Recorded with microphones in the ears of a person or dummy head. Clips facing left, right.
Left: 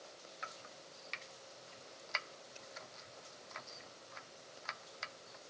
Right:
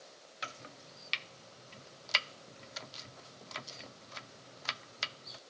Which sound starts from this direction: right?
Chopping, at 0.4 s.